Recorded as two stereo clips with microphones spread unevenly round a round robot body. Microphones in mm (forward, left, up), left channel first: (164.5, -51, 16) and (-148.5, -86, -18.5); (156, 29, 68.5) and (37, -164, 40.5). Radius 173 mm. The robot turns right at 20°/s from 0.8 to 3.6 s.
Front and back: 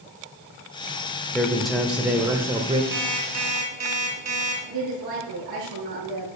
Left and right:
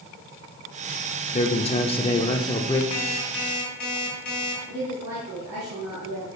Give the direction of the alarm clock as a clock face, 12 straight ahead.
9 o'clock.